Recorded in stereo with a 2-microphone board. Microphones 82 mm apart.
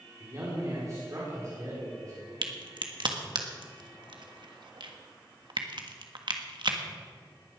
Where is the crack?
65° right (ahead or behind), 1.5 m.